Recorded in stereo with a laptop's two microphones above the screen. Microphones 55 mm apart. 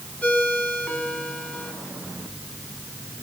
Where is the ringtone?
25° left (ahead or behind), 6 m.